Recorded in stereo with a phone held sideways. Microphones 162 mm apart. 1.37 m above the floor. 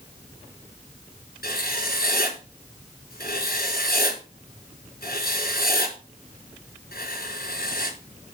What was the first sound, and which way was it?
Writing, 65° left (ahead or behind).